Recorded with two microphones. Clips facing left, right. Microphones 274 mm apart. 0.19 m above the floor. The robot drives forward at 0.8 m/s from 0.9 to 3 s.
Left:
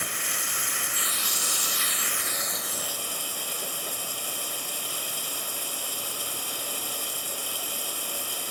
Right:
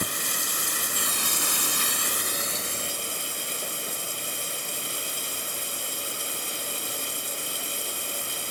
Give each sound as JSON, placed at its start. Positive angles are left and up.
{"t": 0.0, "sound": "running water", "side_deg": -45, "distance_m": 0.8}